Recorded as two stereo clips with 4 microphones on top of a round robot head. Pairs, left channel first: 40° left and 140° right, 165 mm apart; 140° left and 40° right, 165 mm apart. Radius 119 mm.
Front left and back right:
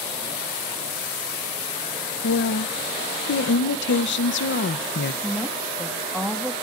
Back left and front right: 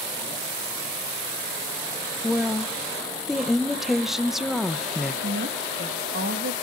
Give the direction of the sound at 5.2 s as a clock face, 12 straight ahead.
2 o'clock.